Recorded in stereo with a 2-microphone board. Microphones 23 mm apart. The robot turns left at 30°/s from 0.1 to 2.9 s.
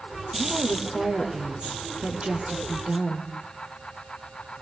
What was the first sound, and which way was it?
A woman speaking, 20° right.